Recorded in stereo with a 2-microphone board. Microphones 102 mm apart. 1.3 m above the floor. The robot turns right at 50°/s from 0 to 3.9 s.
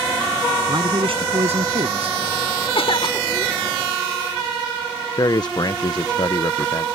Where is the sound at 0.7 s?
140° right; by 2.2 s 65° right.